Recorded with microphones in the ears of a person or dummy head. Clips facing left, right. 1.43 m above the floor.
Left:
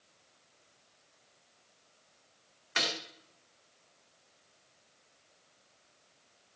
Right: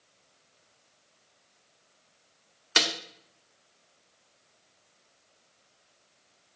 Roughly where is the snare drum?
Right.